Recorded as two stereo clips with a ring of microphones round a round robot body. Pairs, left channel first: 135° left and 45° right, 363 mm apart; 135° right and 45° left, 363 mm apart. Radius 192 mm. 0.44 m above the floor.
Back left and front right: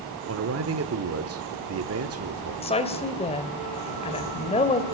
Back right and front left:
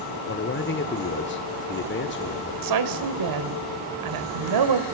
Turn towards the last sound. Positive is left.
turn(degrees=65)